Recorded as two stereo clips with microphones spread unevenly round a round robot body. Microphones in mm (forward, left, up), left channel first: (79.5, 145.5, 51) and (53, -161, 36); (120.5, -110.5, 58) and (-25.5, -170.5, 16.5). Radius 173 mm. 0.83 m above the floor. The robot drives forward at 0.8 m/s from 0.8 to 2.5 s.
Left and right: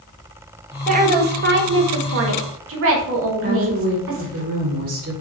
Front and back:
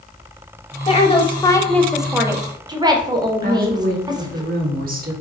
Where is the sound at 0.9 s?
35° right, 1.3 m; by 4.4 s 120° right, 1.0 m.